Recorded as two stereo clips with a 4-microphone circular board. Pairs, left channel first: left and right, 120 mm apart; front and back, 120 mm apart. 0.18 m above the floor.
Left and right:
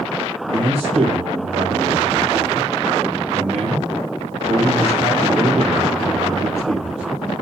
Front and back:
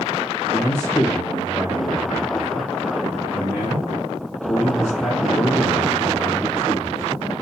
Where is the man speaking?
85° right, 3.5 m.